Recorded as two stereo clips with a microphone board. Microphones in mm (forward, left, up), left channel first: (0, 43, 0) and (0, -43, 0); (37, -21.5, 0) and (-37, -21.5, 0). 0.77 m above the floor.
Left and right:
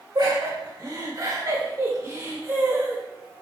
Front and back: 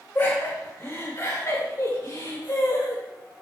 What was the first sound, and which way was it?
Laughter, 60° right.